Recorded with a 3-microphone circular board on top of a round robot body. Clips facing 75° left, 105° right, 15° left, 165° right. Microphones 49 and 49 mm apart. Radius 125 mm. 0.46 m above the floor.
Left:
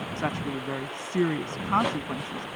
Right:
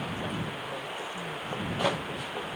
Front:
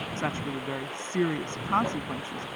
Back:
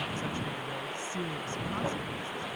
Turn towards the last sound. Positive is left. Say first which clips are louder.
# left 4 dB, front 4 dB
turn(degrees=55)